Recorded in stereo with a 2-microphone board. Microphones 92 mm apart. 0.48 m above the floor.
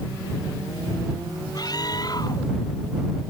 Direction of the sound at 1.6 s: 45° left (ahead or behind).